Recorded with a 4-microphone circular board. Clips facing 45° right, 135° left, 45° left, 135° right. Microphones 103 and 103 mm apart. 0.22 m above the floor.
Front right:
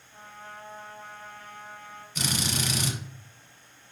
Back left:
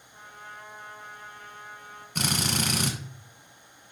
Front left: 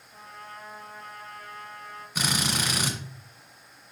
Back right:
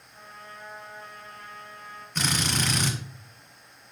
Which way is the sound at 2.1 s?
125° left.